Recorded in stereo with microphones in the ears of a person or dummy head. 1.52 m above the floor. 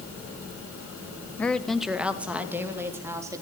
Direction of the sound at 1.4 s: 10° left (ahead or behind).